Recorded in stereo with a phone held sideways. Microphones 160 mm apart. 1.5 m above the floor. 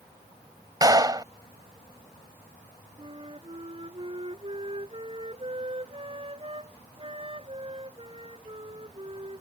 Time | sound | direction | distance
0.8 | a clap | 25° right (ahead or behind) | ?
3.0 | a flute | 35° right (ahead or behind) | ?